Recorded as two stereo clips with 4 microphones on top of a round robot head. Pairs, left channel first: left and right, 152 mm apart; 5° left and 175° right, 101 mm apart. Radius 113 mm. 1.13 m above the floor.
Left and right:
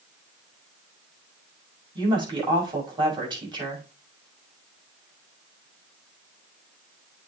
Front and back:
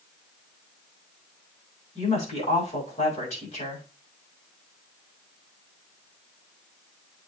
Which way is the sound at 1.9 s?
30° right.